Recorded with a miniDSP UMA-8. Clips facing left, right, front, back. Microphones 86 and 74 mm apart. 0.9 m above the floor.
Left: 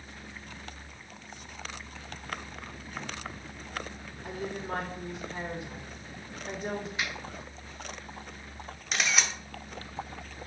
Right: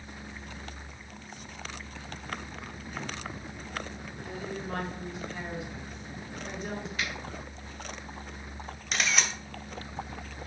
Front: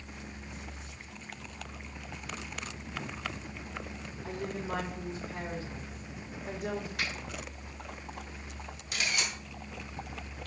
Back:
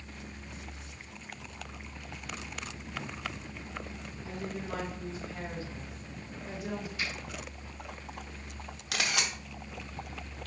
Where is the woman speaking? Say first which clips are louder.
Left 2 dB, front 2 dB; 45° left, 3 m.